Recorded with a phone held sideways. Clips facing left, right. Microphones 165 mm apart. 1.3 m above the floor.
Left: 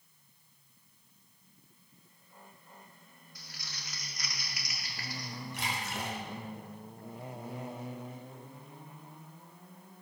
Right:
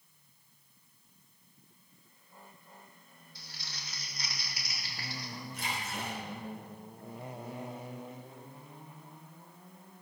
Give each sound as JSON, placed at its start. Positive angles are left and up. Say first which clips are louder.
{"t": 3.4, "sound": "crumpling", "louder": "even", "side_deg": -30, "distance_m": 2.5}
{"t": 5.5, "sound": "a splash", "louder": "left 1 dB", "side_deg": 80, "distance_m": 4.0}